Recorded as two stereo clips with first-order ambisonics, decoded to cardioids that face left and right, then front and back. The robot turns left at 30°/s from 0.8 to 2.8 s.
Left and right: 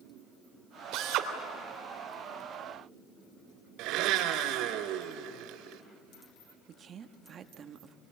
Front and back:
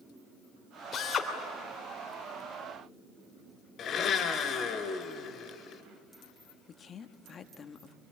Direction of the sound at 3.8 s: 55° right.